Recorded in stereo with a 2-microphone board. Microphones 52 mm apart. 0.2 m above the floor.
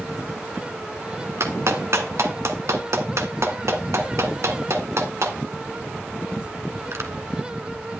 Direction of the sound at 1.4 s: 60° right (ahead or behind).